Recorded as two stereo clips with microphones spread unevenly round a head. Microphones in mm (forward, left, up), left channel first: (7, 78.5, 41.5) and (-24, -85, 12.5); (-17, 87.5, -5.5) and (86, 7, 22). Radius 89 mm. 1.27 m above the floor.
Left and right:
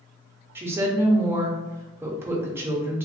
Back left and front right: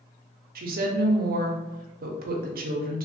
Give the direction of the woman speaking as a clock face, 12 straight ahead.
1 o'clock.